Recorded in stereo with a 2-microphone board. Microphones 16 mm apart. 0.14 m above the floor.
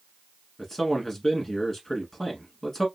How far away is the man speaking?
About 1.2 m.